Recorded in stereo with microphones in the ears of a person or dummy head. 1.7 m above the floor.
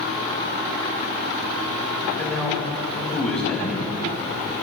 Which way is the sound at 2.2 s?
5° left (ahead or behind).